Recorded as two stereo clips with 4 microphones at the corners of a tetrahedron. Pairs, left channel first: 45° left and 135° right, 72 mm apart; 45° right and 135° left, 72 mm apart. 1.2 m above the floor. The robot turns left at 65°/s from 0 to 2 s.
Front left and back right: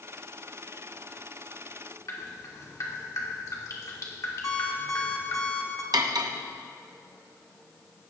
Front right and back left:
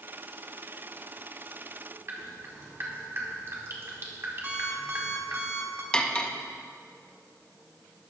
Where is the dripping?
85° left, 2 m.